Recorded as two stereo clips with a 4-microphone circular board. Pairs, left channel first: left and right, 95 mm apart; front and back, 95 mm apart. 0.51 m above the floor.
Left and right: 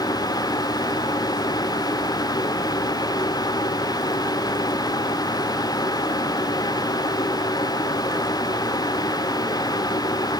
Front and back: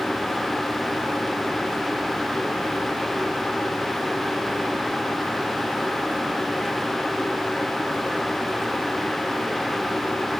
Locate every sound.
Only background noise.